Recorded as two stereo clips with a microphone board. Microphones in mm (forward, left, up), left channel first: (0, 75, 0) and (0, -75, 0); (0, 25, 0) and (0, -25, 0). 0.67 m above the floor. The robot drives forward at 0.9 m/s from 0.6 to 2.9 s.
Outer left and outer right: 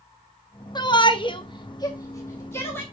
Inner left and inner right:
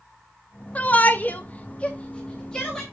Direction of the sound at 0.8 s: 30° left (ahead or behind).